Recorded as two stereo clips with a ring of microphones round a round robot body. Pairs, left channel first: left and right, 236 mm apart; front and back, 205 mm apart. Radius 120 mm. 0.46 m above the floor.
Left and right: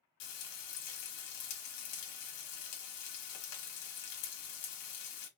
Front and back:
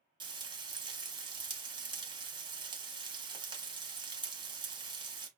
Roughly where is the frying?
Left.